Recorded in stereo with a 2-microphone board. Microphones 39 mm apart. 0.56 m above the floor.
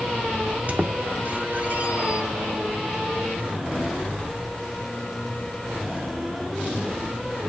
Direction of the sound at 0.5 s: 40° right (ahead or behind).